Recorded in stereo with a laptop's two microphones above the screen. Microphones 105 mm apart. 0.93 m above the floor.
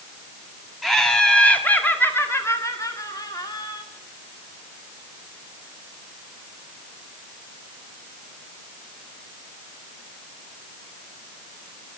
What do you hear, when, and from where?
0.8 s laughter: centre (ahead or behind), 2 m; by 3.8 s 40° left (ahead or behind), 2.5 m